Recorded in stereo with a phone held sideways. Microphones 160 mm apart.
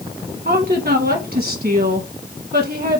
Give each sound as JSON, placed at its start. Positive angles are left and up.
{"t": 0.5, "sound": "a woman speaking", "side_deg": -65, "distance_m": 1.7}